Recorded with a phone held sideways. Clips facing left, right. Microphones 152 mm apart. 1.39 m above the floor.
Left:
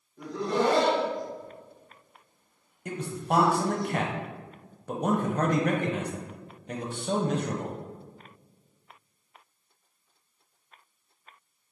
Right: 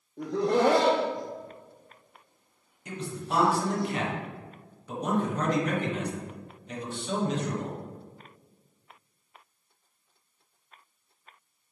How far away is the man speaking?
About 0.7 m.